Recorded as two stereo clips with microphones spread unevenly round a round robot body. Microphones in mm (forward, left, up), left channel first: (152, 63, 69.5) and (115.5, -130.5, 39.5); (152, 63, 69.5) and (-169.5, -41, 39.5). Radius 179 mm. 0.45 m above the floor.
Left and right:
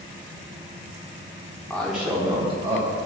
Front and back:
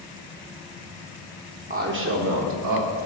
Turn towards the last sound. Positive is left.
turn(degrees=-150)